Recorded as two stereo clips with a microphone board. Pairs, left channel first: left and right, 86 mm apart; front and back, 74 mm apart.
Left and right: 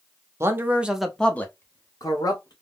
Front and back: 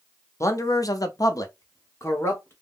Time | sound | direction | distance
0.4 | a man speaking | 40° right | 0.7 m